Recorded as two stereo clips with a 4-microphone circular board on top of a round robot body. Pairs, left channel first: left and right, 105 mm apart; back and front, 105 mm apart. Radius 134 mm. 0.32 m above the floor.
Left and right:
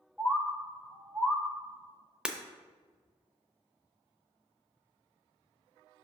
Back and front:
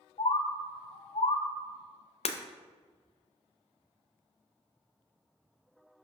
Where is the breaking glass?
170° right, 0.7 m.